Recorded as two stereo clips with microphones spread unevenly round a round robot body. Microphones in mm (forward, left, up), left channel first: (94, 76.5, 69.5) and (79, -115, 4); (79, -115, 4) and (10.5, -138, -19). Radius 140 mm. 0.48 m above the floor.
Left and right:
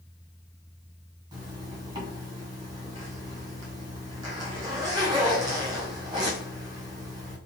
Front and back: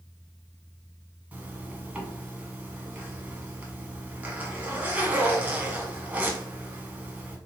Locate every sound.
1.3 s a zipper: 125° right, 1.4 m